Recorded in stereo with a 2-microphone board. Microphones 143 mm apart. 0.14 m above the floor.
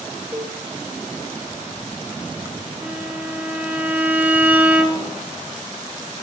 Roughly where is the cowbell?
Right.